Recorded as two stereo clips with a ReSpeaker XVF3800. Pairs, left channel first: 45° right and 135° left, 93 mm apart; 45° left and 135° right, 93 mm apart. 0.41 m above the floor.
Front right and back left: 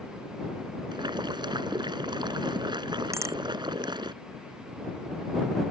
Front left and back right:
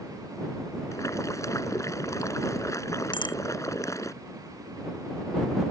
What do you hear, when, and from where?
0.9 s boiling: 100° left
3.1 s a bicycle bell: 75° left